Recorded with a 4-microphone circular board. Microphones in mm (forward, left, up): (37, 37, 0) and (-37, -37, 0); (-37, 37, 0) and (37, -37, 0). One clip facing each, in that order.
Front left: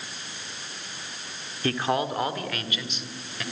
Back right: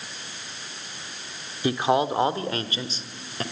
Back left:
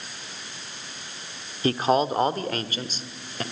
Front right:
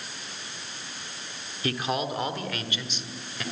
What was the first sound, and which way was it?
A man speaking, 160° left.